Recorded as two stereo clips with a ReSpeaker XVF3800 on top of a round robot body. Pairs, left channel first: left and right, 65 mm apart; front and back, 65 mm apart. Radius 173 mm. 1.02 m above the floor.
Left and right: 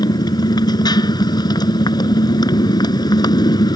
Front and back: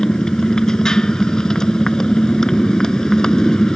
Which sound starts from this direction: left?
A motorcycle, at 0.0 s.